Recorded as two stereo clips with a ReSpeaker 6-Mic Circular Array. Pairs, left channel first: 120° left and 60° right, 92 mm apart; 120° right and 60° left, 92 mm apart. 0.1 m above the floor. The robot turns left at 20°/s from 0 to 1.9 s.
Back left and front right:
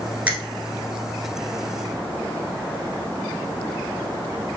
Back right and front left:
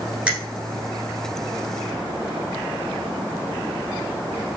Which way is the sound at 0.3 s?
5° right.